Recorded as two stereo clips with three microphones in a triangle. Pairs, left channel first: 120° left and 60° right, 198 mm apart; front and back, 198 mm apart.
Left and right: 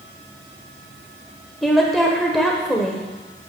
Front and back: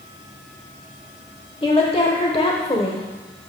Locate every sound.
1.6 s a woman speaking: 30° left, 1.0 m